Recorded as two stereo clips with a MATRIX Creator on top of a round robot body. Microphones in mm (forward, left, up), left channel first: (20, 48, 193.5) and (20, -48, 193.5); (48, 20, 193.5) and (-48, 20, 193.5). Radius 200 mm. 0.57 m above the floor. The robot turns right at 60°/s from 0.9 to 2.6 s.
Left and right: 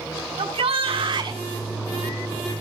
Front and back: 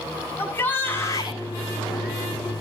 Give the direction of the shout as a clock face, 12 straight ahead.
2 o'clock.